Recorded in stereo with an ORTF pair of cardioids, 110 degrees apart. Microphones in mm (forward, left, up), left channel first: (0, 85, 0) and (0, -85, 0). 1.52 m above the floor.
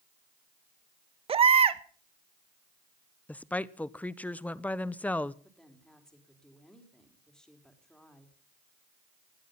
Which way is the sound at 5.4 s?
5° left.